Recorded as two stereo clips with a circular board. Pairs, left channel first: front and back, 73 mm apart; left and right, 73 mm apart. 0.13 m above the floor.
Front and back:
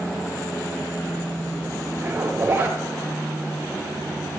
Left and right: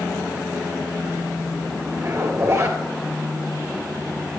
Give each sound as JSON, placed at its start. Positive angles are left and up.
{"t": 2.0, "sound": "a zipper", "azimuth_deg": -120, "distance_m": 2.5}